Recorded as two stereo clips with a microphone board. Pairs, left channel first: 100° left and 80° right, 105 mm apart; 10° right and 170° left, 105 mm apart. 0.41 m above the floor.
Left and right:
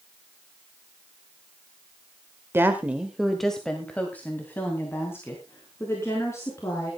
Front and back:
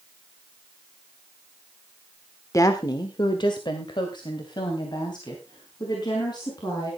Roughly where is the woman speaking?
Ahead right.